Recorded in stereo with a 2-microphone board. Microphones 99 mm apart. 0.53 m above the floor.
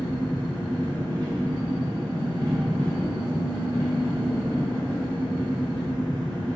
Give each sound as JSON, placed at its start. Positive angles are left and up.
{"t": 0.0, "sound": "an engine running", "side_deg": -45, "distance_m": 1.4}